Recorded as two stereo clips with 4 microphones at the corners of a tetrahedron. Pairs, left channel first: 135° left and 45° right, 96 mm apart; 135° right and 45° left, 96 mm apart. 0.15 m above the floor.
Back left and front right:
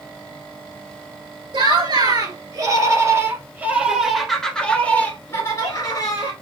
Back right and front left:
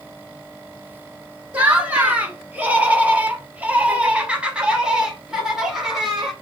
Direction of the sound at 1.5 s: 30° right.